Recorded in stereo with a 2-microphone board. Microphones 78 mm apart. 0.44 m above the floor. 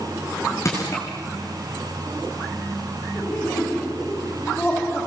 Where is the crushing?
40° left (ahead or behind), 8.5 m.